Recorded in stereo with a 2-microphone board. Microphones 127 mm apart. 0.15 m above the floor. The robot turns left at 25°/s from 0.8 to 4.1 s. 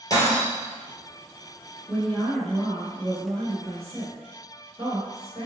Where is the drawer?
I don't hear a drawer.